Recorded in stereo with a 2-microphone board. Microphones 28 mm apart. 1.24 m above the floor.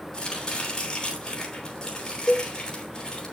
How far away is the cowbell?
About 1.3 m.